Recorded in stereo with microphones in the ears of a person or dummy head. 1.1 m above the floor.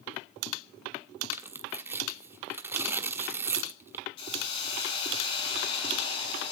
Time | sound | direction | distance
1.3 | tearing paper | 10° right (ahead or behind) | 1.2 m
4.2 | a hiss | 30° left (ahead or behind) | 4.5 m